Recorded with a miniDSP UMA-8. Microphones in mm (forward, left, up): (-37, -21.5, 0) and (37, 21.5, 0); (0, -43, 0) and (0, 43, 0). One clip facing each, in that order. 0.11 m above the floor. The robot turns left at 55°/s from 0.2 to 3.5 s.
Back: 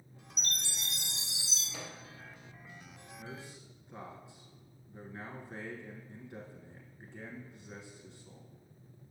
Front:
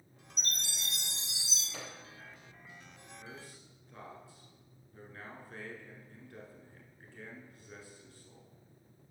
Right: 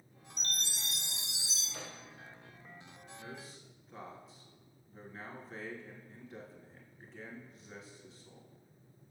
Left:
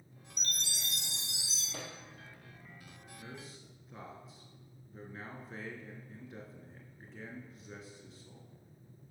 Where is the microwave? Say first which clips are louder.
Back 2 dB, left 3 dB; 125° left, 3 m; by 2.0 s 110° left, 3 m.